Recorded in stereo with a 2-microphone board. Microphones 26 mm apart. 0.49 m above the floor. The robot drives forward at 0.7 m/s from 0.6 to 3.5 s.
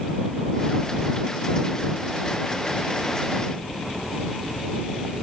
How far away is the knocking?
No knocking in this recording.